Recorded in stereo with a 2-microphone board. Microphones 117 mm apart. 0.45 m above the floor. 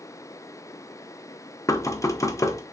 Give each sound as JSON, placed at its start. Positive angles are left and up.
{"t": 1.7, "sound": "knocking", "side_deg": 25, "distance_m": 0.5}